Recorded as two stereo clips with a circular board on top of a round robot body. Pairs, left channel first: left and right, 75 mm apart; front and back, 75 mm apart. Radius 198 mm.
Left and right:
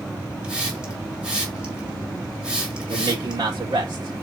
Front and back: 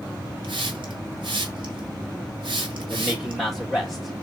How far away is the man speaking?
About 2.5 m.